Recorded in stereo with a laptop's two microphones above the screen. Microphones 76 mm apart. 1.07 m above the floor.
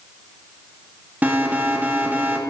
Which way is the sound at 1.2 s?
20° right (ahead or behind).